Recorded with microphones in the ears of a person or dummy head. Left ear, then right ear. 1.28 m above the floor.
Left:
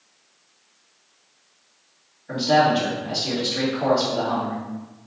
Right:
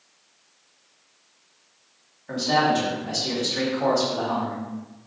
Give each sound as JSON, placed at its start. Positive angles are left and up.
{"t": 2.3, "sound": "a man speaking", "side_deg": -70, "distance_m": 1.7}